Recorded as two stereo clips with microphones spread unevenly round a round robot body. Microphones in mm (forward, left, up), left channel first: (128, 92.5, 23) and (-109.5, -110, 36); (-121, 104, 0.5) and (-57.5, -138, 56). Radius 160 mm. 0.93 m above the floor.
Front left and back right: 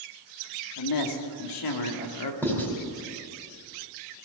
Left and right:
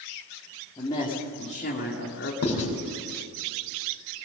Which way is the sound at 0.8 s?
30° left.